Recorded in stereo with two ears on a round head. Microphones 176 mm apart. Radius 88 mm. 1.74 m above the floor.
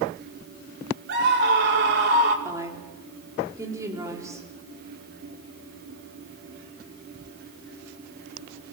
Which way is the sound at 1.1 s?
60° right (ahead or behind).